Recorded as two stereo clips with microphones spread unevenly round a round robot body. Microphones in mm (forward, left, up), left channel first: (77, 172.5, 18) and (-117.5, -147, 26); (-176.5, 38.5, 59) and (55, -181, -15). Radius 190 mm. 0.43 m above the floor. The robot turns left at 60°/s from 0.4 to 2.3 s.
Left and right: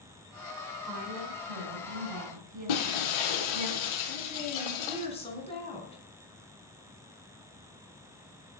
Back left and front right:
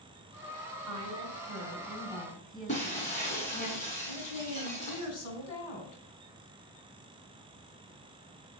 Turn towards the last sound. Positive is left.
turn(degrees=135)